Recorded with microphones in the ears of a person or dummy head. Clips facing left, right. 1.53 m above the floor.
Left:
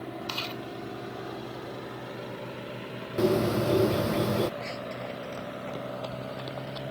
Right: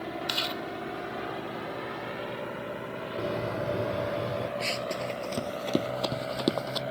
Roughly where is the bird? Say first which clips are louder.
Left 8 dB; left.